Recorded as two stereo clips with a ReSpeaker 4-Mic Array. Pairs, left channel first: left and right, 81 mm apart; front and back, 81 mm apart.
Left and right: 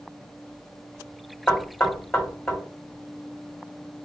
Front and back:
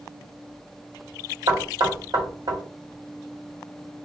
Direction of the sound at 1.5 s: 160° left.